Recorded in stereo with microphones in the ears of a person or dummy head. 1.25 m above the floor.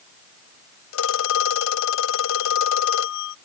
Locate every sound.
0.9 s a phone ringing: 80° left